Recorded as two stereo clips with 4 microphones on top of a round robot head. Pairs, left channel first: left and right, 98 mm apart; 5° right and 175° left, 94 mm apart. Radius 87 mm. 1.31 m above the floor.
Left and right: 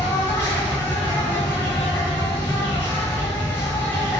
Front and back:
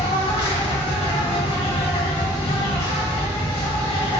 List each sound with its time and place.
0.0 s an insect: 20° left, 0.9 m